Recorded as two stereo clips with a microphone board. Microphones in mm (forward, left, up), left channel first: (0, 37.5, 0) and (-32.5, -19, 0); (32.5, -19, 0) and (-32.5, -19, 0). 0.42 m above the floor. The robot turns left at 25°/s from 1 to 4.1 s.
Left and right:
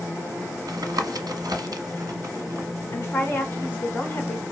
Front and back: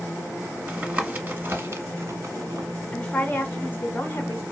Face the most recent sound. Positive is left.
turn(degrees=25)